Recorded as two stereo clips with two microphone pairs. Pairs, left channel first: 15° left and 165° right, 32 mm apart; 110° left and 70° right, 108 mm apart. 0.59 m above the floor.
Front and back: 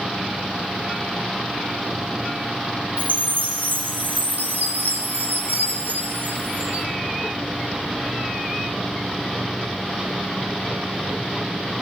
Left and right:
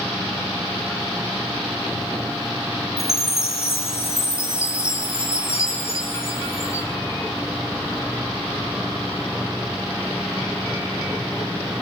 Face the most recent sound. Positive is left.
turn(degrees=175)